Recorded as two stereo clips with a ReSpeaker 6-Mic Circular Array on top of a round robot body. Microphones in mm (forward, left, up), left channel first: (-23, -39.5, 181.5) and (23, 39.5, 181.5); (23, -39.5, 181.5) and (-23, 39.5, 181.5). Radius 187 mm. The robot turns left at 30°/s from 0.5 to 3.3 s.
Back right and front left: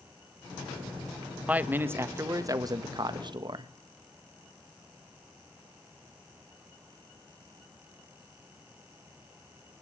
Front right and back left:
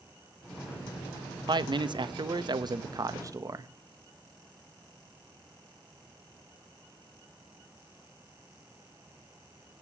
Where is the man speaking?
130° left, 1.3 m; by 3.7 s 80° left, 1.3 m.